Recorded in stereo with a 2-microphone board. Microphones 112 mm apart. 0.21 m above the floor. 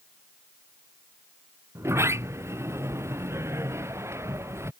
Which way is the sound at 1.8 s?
25° right (ahead or behind).